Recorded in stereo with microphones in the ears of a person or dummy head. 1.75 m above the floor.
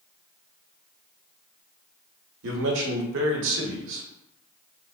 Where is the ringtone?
No ringtone in this recording.